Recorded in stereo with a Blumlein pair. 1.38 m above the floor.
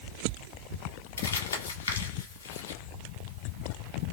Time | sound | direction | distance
1.2 | crumpling | 65° left | 1.3 m